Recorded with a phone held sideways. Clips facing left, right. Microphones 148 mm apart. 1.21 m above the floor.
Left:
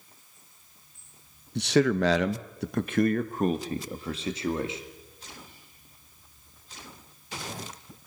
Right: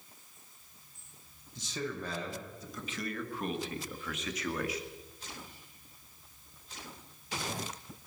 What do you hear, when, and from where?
1.6 s a man speaking: 65° left (ahead or behind), 1.0 m; by 4.8 s 25° left (ahead or behind), 2 m